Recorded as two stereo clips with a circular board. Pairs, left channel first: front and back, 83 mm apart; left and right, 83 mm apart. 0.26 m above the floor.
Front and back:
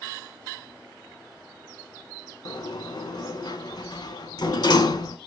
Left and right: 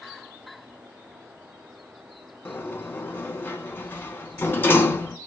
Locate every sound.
2.5 s a sliding door: 30° left, 0.8 m